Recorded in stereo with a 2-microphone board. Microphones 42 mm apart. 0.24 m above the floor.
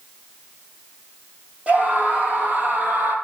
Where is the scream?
35° right (ahead or behind), 7 m; by 3.1 s 40° right (ahead or behind), 7 m.